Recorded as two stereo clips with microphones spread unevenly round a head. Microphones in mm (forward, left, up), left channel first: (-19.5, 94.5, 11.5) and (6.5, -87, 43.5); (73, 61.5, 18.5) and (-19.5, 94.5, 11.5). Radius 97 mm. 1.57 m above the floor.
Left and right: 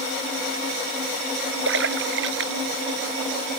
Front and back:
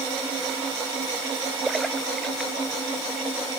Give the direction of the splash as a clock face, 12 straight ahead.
4 o'clock.